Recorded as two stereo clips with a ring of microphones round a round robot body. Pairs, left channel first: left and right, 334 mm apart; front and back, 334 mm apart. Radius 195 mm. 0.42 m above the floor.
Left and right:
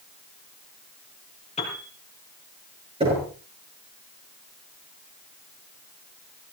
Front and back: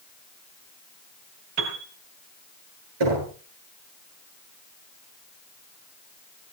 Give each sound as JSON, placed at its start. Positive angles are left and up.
{"t": 1.6, "sound": "a piano", "azimuth_deg": 165, "distance_m": 4.0}
{"t": 3.0, "sound": "knocking", "azimuth_deg": -165, "distance_m": 8.5}